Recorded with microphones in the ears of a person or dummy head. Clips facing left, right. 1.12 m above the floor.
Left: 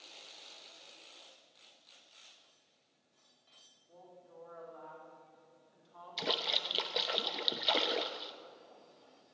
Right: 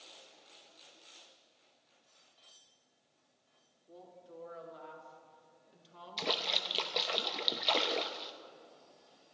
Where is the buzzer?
I don't hear a buzzer.